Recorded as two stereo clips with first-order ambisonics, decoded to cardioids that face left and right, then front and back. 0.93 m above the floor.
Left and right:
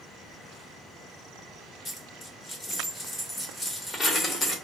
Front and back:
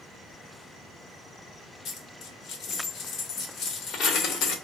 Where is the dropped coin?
20° left, 0.7 m.